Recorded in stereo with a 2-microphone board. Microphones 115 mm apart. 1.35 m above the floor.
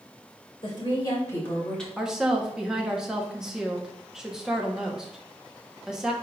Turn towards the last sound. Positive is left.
turn(degrees=-5)  # may be behind; listen again after turning